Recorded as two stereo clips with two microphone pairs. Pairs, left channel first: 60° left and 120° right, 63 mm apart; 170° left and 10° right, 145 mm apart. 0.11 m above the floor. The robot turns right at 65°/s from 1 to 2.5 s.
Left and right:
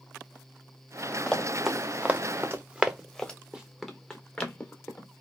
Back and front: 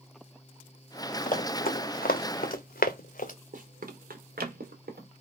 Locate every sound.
1.3 s running footsteps: 145° left, 1.1 m
3.5 s running footsteps: 40° right, 1.0 m; by 5.1 s straight ahead, 1.5 m